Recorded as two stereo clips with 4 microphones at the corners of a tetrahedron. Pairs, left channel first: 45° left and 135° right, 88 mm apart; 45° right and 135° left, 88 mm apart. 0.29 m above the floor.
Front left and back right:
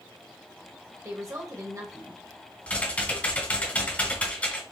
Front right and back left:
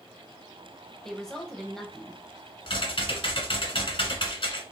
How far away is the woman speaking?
About 1.1 m.